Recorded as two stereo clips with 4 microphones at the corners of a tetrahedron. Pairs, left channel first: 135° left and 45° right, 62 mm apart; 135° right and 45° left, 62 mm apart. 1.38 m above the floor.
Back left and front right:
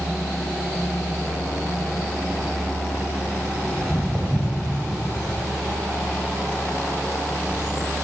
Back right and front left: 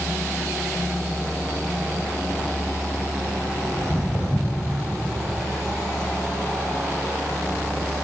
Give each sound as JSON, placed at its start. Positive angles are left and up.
{"t": 3.8, "sound": "footsteps", "azimuth_deg": -130, "distance_m": 1.8}